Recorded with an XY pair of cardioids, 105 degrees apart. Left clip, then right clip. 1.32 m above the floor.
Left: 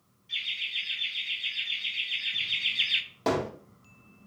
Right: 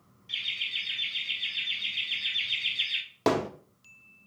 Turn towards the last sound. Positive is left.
turn(degrees=-45)